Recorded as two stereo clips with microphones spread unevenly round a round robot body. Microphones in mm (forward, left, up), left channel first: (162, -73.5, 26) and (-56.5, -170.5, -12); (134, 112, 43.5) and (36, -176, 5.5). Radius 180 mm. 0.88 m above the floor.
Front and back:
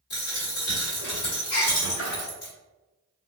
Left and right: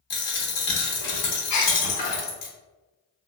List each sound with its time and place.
0.1 s a dropped coin: 70° left, 0.9 m
1.5 s a gasp: 35° left, 1.2 m